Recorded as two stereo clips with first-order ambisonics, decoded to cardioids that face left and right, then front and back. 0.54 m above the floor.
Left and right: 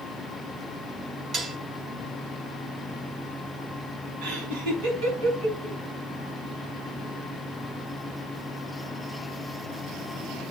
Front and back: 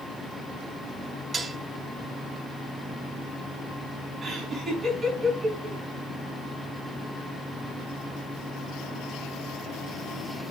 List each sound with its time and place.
1.3 s dishes clattering: 125° right, 0.5 m
4.2 s laughter: 105° right, 3.5 m